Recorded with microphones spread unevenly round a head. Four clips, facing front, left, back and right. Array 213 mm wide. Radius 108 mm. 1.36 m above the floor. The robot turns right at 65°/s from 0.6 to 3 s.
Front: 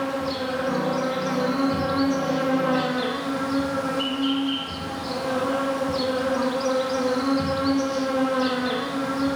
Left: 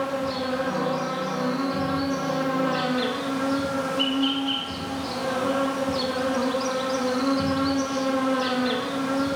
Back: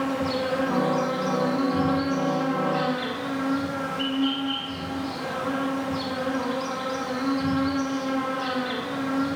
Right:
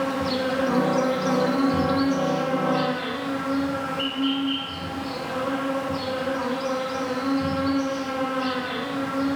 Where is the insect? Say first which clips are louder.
Right 2 dB, back 1 dB; 105° right, 1.7 m; by 9.3 s 50° left, 1.7 m.